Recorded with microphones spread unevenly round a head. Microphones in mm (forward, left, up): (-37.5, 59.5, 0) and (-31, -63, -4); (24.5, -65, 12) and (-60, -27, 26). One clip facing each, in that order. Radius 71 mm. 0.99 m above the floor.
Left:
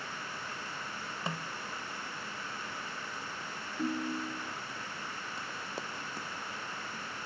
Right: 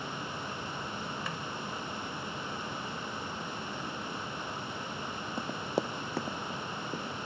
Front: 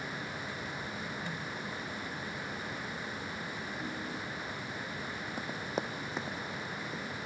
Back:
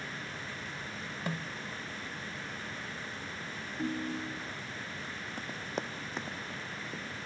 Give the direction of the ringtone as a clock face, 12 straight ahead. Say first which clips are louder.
Left 5 dB, back 9 dB; 8 o'clock.